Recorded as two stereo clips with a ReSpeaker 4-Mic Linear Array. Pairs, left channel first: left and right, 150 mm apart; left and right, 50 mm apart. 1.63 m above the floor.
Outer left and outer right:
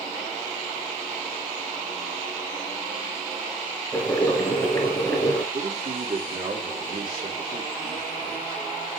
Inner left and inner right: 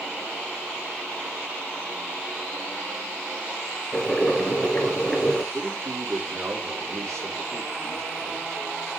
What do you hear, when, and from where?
3.9 s boiling: 15° left (ahead or behind), 3.5 m
5.5 s a man speaking: 70° right (ahead or behind), 3.5 m